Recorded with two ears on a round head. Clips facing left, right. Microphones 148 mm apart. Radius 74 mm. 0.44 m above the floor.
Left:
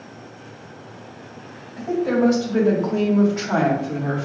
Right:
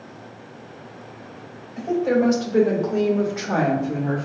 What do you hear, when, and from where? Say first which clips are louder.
1.8 s a woman speaking: even; 30° right (ahead or behind), 2.0 m; by 4.2 s 10° left (ahead or behind), 1.0 m